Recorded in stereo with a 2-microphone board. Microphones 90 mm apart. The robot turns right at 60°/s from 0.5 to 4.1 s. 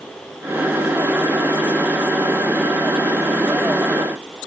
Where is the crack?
I don't hear a crack.